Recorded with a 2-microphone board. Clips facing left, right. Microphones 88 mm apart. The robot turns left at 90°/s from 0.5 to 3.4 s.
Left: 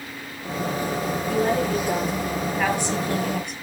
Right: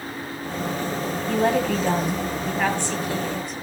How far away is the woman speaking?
About 7.5 m.